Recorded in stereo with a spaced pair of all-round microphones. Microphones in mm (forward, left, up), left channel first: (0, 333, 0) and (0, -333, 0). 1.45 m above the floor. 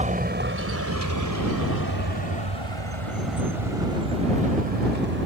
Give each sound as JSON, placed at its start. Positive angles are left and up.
{"t": 0.0, "sound": "a vehicle", "side_deg": -10}